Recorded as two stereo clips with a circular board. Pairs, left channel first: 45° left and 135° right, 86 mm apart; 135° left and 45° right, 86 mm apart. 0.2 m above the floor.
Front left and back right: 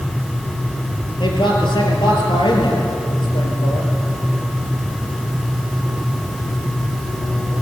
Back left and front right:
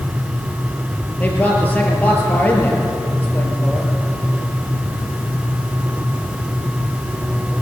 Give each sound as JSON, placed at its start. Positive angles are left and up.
{"t": 1.2, "sound": "a man speaking", "azimuth_deg": 65, "distance_m": 5.0}